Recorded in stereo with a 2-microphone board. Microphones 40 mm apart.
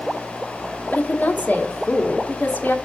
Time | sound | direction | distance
0.9 | a woman speaking | 45° left (ahead or behind) | 1.4 m